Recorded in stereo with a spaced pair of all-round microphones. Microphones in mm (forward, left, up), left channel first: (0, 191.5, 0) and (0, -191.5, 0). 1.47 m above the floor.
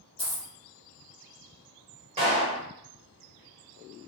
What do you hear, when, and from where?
0.2 s a dropped coin: 15° left (ahead or behind), 1.1 m
2.2 s a clap: 15° right (ahead or behind), 1.4 m